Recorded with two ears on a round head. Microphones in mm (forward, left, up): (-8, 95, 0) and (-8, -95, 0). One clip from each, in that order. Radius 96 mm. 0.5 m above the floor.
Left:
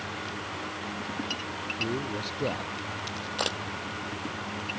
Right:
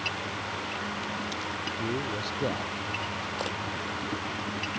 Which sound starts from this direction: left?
A camera shutter, at 3.4 s.